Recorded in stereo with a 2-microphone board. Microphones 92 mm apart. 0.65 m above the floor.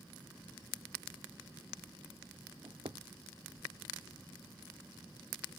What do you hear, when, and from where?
2.6 s a drawer: 80° right